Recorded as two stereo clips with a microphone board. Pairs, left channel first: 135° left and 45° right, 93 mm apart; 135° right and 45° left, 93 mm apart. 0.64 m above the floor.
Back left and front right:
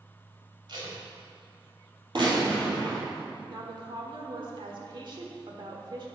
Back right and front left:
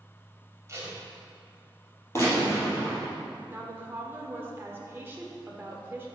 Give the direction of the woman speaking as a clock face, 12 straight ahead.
1 o'clock.